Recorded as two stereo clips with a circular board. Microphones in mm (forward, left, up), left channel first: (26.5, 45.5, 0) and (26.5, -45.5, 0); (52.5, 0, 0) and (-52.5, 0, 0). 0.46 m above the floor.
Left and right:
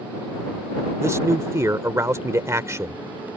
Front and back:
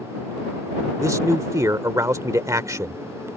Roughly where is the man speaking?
Behind right.